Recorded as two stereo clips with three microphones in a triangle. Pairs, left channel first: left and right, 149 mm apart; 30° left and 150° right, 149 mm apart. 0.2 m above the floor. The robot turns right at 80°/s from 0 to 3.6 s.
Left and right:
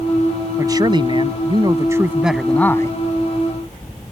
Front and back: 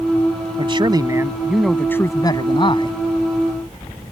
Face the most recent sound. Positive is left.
turn(degrees=100)